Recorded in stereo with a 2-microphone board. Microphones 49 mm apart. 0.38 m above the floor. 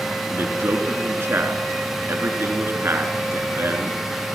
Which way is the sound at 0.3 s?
55° right (ahead or behind).